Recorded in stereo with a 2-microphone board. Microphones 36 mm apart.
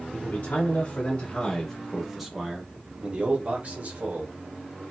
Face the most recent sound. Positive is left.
turn(degrees=-55)  # may be behind; listen again after turning